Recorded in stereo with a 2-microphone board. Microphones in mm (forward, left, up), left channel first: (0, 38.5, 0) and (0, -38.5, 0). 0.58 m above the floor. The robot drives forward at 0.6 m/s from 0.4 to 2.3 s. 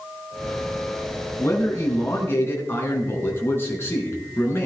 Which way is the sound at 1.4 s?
40° left (ahead or behind).